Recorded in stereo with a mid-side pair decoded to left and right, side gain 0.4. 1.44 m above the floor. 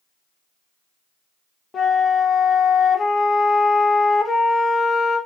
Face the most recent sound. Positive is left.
turn(degrees=50)